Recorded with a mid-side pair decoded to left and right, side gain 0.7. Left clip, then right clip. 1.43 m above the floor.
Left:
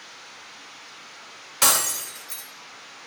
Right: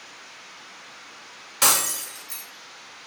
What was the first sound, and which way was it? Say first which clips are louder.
Breaking glass: even; straight ahead.